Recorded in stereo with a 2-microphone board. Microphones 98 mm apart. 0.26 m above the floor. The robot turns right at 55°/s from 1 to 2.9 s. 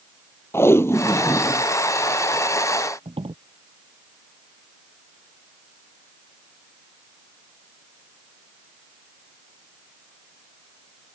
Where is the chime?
I don't hear a chime.